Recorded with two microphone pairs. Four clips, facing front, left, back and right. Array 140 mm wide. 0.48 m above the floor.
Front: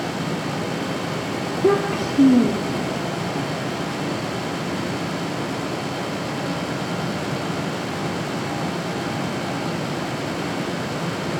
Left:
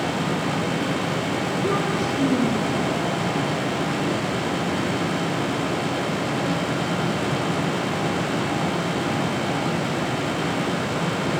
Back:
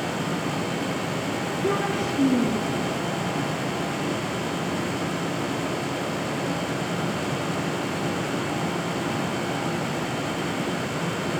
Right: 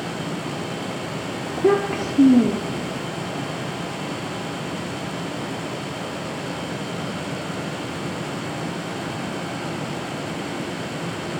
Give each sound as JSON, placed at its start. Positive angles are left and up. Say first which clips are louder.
{"t": 1.5, "sound": "a child speaking", "louder": "right 7 dB, front 8 dB", "azimuth_deg": -50, "distance_m": 7.0}